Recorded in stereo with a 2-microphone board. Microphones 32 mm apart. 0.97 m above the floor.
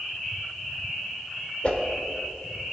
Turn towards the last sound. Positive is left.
turn(degrees=35)  # may be behind; listen again after turning